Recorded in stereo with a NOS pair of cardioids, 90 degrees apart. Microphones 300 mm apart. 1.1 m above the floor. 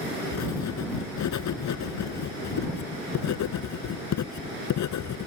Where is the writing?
65° left.